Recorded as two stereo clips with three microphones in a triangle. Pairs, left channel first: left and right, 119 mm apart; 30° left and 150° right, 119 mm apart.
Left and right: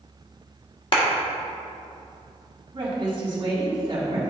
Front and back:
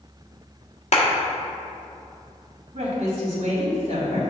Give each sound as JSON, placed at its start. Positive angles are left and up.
{"t": 0.9, "sound": "a clap", "azimuth_deg": 50, "distance_m": 1.2}
{"t": 2.7, "sound": "a woman speaking", "azimuth_deg": -135, "distance_m": 2.0}